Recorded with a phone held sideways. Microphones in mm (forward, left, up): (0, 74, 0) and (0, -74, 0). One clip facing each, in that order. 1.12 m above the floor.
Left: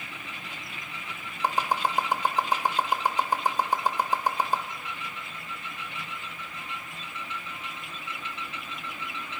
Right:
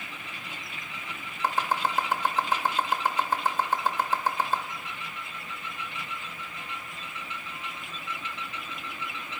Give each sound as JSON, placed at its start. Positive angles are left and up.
{"t": 1.4, "sound": "chopping", "side_deg": 15, "distance_m": 0.6}